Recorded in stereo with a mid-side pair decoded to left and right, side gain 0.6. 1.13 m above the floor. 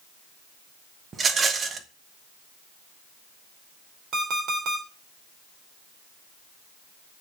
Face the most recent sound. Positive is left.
turn(degrees=-50)